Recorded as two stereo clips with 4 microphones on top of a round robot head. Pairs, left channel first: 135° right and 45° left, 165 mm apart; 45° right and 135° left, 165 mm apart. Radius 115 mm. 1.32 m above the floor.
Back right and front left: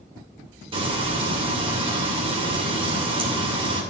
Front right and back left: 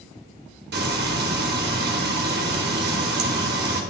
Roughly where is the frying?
Left.